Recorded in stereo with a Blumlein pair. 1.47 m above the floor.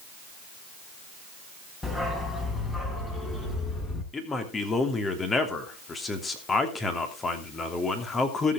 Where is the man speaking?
15° left, 3 m.